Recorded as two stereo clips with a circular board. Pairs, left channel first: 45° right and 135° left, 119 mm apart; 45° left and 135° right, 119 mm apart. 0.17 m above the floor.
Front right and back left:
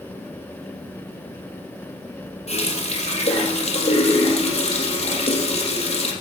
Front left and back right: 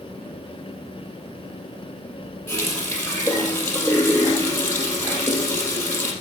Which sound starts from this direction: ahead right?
A running tap, at 2.5 s.